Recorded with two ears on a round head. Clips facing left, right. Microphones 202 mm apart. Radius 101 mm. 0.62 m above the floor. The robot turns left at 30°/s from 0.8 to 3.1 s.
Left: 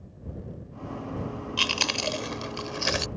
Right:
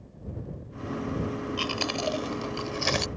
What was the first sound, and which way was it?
Chewing, 50° left (ahead or behind).